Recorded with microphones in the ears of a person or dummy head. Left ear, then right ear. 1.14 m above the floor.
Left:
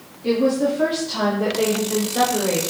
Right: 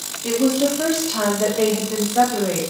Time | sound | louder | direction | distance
0.2 | a woman speaking | even | 15° right (ahead or behind) | 2.5 m